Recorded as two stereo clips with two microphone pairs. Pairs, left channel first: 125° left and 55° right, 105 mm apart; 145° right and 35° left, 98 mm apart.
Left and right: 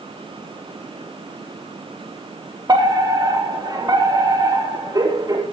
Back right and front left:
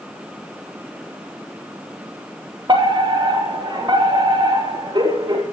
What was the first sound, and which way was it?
A fire alarm, 5° right.